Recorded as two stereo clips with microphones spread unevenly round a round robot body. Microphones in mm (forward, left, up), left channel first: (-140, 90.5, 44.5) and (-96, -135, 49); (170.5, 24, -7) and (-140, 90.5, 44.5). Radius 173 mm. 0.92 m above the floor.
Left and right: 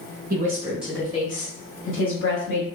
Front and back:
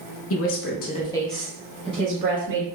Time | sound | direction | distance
0.3 | a woman speaking | 30° right | 0.8 m